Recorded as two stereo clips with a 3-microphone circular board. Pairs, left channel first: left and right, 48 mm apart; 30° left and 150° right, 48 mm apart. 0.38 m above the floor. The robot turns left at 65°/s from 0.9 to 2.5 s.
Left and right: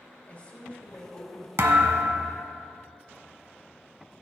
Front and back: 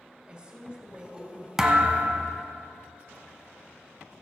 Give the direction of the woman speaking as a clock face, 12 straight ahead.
7 o'clock.